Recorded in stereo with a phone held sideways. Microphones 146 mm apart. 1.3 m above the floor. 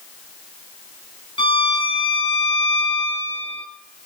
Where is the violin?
35° left (ahead or behind), 5 m.